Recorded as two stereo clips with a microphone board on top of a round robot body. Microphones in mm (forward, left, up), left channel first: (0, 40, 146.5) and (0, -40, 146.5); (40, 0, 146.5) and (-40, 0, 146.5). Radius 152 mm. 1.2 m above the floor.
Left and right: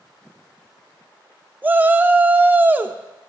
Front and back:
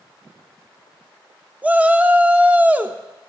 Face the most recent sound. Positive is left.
turn(degrees=-130)